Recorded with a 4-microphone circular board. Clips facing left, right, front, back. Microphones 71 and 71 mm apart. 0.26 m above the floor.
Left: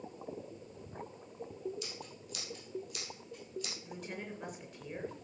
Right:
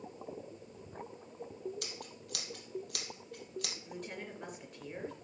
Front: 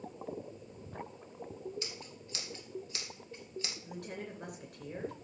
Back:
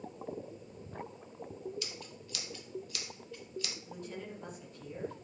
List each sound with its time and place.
1.8 s scissors: 60° right, 2.0 m
3.8 s a woman speaking: straight ahead, 4.5 m